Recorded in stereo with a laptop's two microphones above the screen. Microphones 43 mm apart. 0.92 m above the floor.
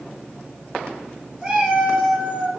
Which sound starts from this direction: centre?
A cat meowing, at 1.4 s.